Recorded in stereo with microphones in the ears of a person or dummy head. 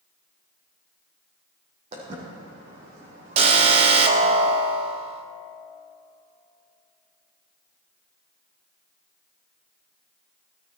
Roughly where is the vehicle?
I don't hear a vehicle.